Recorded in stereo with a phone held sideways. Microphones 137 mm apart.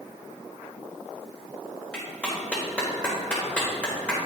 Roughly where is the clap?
Centre.